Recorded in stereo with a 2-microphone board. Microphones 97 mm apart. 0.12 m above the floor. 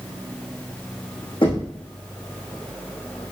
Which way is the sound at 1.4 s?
60° left (ahead or behind).